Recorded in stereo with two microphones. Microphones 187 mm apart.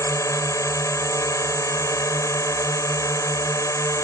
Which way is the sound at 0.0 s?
15° left (ahead or behind).